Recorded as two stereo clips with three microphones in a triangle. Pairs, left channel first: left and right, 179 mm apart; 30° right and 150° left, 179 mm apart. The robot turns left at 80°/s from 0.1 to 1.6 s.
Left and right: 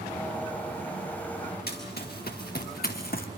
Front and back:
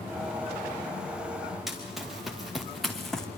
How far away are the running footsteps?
About 3.5 m.